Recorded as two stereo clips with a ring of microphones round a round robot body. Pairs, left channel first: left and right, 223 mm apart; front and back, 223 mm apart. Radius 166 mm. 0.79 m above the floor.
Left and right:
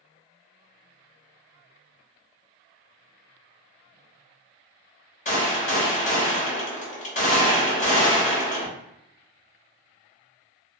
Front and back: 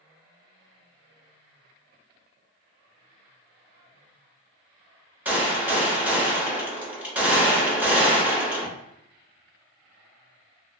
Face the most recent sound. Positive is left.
turn(degrees=100)